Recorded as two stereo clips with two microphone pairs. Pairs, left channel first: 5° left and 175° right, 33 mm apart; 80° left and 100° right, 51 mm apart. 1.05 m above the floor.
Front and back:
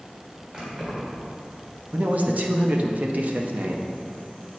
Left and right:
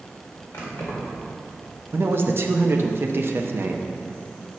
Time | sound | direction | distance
0.5 | keys jangling | 120° left | 1.9 m
1.9 | a man speaking | 140° right | 0.6 m